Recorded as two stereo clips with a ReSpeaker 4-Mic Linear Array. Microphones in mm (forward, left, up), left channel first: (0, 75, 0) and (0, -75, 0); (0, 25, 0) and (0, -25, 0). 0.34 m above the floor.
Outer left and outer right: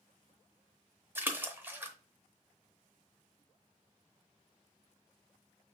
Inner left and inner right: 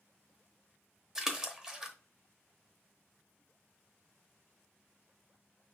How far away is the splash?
About 0.8 m.